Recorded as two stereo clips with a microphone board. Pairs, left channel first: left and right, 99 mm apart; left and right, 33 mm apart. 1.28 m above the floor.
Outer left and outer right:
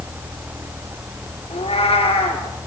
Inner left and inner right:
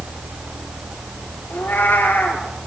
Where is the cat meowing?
80° left, 5 m.